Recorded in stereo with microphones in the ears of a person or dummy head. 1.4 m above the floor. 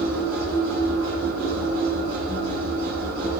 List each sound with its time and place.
0.0 s a machine running: 70° right (ahead or behind), 3.5 m